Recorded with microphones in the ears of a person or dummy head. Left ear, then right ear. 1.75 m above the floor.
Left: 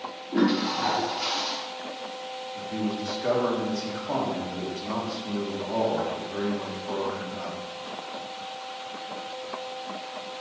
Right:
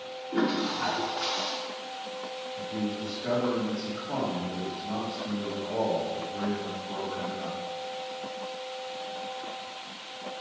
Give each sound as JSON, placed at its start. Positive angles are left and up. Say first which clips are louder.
{"t": 0.3, "sound": "a toilet flushing", "louder": "left 3 dB", "side_deg": 0, "distance_m": 1.0}
{"t": 2.5, "sound": "a man speaking", "louder": "left 3 dB", "side_deg": 75, "distance_m": 2.0}